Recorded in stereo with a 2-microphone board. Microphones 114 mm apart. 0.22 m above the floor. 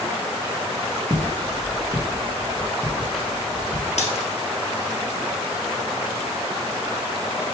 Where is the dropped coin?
80° left, 1.8 m.